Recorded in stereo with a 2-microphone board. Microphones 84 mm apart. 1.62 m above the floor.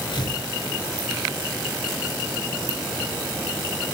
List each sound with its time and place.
0.1 s tearing paper: 65° left (ahead or behind), 9 m